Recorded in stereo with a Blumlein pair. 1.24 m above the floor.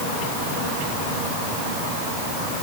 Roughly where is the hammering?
No hammering in this recording.